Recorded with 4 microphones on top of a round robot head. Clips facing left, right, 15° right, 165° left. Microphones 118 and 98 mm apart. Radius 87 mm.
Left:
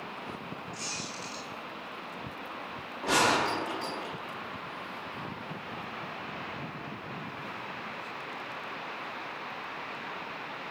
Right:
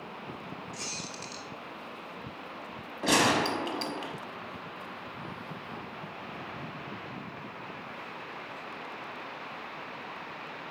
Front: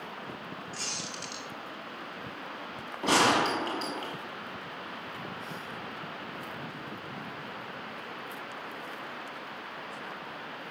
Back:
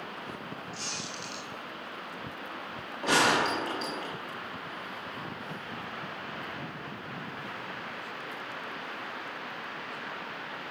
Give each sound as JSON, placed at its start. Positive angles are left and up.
{"t": 0.7, "sound": "a squeak", "azimuth_deg": -40, "distance_m": 0.7}
{"t": 3.0, "sound": "a gunshot", "azimuth_deg": -85, "distance_m": 1.2}